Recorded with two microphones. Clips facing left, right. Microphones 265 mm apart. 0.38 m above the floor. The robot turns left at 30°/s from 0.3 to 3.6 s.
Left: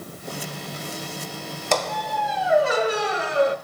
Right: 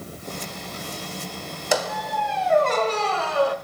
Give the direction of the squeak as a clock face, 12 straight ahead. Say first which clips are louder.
Even; 6 o'clock.